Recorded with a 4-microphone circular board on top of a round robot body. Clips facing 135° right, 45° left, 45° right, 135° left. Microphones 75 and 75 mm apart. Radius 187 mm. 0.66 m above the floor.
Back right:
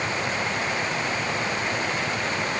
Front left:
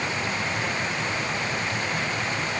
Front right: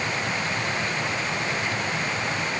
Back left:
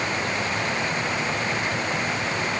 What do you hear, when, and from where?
Only background noise.